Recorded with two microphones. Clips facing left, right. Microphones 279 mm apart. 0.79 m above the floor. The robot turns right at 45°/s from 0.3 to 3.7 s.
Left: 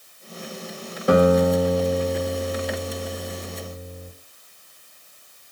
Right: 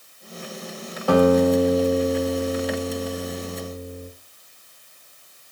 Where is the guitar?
150° left, 0.7 m; by 4.1 s 95° right, 0.7 m.